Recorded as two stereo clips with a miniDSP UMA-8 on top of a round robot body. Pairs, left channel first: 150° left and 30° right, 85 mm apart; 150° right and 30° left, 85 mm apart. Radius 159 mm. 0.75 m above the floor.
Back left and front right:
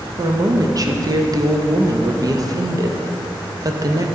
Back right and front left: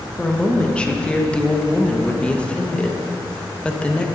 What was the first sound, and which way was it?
A woman speaking, 70° right.